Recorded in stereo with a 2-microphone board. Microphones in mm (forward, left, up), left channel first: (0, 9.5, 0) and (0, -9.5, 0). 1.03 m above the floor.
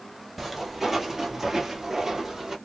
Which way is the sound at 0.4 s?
5° right (ahead or behind).